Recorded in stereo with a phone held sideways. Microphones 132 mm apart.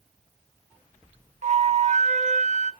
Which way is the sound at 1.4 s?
55° right (ahead or behind).